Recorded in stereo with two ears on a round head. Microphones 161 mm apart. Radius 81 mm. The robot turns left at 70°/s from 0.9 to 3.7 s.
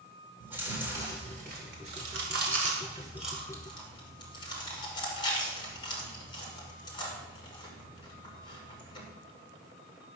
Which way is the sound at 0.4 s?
10° right (ahead or behind).